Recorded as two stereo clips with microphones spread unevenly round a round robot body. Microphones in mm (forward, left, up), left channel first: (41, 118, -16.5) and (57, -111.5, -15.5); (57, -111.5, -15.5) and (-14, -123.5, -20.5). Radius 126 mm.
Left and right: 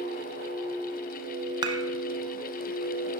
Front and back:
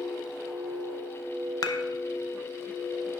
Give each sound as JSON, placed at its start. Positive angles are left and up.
{"t": 1.6, "sound": "dishes clattering", "azimuth_deg": -15, "distance_m": 0.5}